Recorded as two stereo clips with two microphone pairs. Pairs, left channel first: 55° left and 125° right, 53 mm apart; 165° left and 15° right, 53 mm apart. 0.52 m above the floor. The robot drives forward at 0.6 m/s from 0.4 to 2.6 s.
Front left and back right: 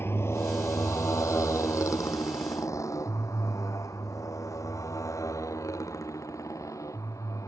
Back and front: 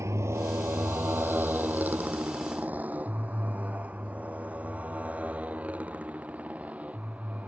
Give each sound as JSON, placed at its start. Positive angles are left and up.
{"t": 0.0, "sound": "a motorcycle", "azimuth_deg": 15}